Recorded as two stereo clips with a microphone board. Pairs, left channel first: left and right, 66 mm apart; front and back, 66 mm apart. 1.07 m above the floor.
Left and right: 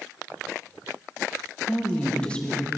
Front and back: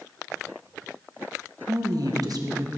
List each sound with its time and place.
1.7 s a woman speaking: 165° left, 1.2 m